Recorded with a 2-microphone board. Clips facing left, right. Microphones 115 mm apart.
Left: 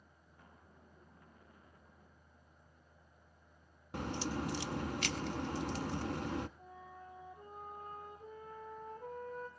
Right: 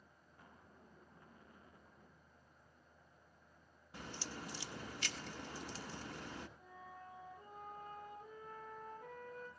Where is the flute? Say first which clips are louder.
Left 2 dB; 30° left (ahead or behind), 9 m.